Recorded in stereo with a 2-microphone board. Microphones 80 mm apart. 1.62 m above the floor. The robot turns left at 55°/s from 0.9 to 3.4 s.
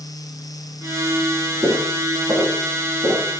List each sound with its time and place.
1.6 s footsteps: 25° right (ahead or behind), 2.0 m; by 3.3 s 55° right (ahead or behind), 3.5 m